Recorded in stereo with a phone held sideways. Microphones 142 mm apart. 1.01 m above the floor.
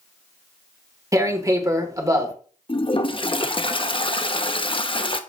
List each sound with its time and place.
1.1 s tearing paper: 25° right (ahead or behind), 1.5 m
2.7 s a toilet flushing: 40° left (ahead or behind), 0.7 m